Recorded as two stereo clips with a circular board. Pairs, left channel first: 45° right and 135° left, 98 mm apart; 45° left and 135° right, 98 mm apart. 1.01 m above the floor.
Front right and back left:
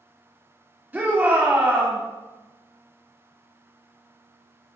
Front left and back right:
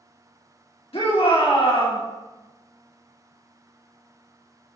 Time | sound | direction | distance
0.9 | a shout | 60° left | 2 m